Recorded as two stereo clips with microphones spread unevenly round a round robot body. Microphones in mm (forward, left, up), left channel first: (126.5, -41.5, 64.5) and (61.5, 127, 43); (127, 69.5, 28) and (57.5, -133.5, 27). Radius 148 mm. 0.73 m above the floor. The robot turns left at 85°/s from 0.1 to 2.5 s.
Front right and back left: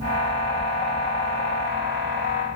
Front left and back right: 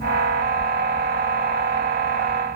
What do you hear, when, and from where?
Only background noise.